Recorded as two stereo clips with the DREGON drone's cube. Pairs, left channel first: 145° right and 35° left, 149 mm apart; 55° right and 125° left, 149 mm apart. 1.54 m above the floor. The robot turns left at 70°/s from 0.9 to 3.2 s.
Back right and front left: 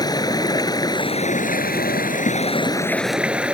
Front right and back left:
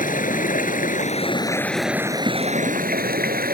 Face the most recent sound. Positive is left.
turn(degrees=115)